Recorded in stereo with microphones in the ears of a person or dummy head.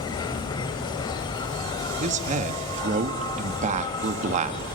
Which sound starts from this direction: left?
An insect, at 0.0 s.